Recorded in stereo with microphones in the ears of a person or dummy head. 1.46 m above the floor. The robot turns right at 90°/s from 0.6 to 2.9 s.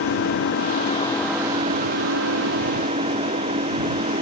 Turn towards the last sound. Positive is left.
turn(degrees=-35)